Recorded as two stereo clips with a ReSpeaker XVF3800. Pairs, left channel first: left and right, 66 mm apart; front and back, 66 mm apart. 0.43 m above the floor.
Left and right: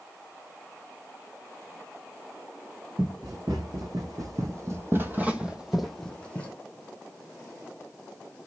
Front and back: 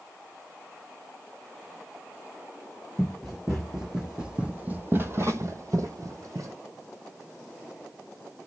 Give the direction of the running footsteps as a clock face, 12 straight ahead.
3 o'clock.